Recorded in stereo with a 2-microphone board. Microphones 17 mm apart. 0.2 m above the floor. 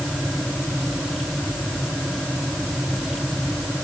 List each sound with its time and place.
Only background noise.